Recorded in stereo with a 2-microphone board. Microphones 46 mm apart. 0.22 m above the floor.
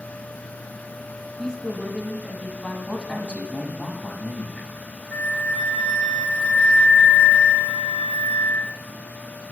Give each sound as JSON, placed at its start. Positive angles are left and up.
{"t": 1.4, "sound": "a woman speaking", "side_deg": 20, "distance_m": 1.6}
{"t": 2.9, "sound": "a man speaking", "side_deg": 25, "distance_m": 1.8}
{"t": 5.1, "sound": "a flute", "side_deg": 35, "distance_m": 1.9}